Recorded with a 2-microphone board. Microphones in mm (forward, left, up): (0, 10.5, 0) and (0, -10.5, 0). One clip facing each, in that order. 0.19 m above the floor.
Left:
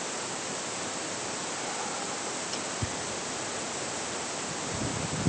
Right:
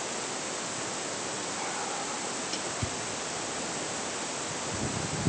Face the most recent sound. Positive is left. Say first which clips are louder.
# even
turn(degrees=-10)  # may be behind; listen again after turning